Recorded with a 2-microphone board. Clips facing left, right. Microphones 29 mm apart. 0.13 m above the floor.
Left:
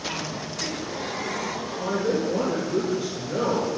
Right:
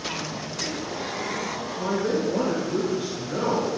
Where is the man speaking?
25° right (ahead or behind), 1.2 m.